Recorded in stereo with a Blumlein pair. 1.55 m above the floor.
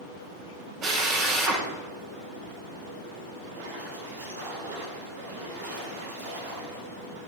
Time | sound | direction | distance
0.8 | a drill | 30° right | 6.5 m
3.5 | a splash | 60° right | 6.5 m